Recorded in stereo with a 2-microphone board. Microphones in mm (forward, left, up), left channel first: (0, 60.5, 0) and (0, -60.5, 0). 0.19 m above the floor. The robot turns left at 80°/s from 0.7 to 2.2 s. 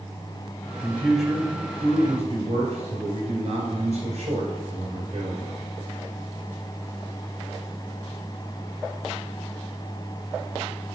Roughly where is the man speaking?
Ahead left.